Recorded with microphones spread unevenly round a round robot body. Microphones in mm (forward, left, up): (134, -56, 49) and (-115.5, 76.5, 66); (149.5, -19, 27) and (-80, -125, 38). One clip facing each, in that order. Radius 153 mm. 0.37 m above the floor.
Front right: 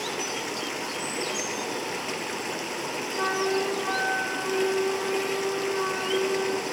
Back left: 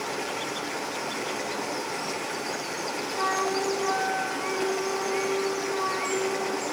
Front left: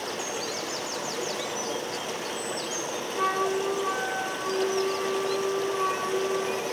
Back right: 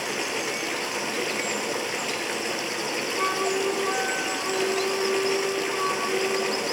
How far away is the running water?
About 2.5 m.